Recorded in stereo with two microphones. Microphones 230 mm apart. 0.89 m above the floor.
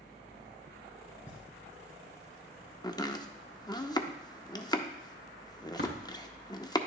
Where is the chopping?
20° left (ahead or behind), 0.6 m.